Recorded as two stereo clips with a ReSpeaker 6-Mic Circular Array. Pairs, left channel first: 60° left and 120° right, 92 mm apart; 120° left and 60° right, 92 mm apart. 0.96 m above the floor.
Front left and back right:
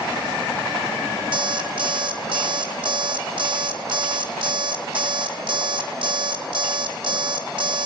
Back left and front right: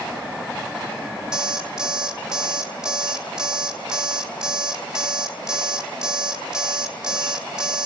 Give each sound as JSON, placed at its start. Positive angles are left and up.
{"t": 1.3, "sound": "an alarm clock", "azimuth_deg": -140, "distance_m": 2.5}